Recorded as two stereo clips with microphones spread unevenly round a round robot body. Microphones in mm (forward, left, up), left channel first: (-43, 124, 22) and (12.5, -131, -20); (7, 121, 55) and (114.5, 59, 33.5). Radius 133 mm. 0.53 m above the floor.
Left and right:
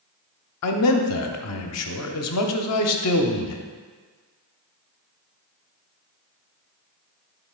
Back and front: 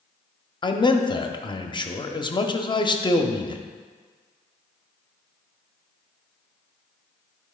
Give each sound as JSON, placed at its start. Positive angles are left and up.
{"t": 0.6, "sound": "a man speaking", "azimuth_deg": 95, "distance_m": 0.9}